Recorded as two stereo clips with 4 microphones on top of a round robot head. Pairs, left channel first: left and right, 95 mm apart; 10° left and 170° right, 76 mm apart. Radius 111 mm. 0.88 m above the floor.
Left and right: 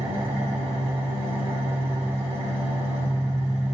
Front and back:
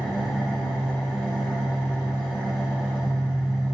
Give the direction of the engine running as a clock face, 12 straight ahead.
3 o'clock.